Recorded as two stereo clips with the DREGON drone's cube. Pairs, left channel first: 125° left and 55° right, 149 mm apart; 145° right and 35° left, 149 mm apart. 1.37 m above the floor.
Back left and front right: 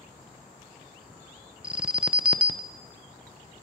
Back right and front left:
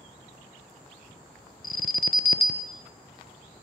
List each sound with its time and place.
1.6 s an alarm: 140° right, 0.6 m